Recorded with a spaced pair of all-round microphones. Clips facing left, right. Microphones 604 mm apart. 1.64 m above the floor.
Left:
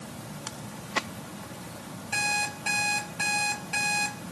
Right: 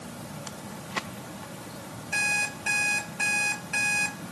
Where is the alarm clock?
60° left (ahead or behind), 3 m.